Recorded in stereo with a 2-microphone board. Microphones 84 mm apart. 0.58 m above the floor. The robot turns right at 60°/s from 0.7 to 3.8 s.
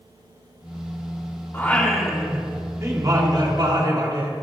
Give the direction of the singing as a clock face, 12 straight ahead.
7 o'clock.